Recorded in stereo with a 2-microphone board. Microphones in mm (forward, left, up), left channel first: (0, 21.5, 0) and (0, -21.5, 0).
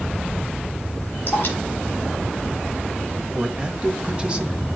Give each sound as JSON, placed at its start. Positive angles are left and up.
{"t": 1.3, "sound": "dripping", "side_deg": 45, "distance_m": 6.5}
{"t": 3.3, "sound": "a man speaking", "side_deg": -25, "distance_m": 1.1}